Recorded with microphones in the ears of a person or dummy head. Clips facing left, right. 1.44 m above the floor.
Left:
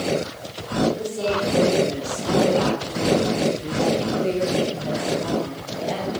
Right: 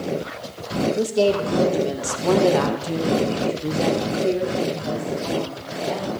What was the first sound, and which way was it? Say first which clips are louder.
A woman speaking: right 5 dB; 80° right.